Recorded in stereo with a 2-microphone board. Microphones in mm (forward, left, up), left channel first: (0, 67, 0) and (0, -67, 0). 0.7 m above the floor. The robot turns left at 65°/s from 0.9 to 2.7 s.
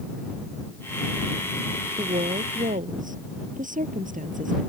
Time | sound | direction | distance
2.0 | a woman speaking | 50° right | ?